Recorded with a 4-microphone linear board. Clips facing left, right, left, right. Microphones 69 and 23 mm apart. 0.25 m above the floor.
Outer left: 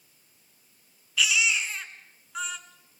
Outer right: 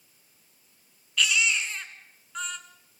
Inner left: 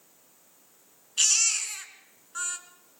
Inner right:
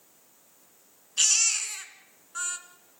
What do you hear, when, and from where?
1.2 s a baby crying: 5° left (ahead or behind), 1.6 m